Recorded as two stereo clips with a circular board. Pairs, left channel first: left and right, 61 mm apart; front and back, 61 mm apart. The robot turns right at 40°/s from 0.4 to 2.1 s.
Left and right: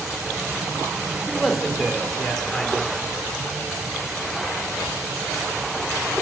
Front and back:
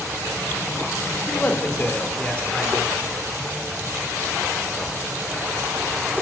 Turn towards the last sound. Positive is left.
turn(degrees=20)